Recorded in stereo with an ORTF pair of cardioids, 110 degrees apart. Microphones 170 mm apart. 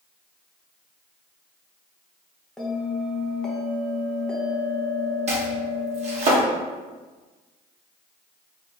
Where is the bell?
5° left, 0.9 m.